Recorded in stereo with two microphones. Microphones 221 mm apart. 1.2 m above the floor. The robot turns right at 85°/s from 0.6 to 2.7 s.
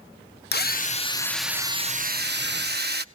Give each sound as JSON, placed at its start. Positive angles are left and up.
{"t": 0.5, "sound": "a drill", "azimuth_deg": 110, "distance_m": 0.8}